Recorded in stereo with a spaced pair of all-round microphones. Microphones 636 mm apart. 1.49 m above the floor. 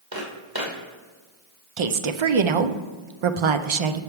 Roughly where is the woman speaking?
Right.